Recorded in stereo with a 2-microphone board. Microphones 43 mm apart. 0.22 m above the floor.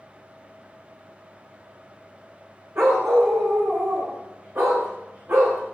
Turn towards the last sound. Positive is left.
turn(degrees=-60)  # may be behind; listen again after turning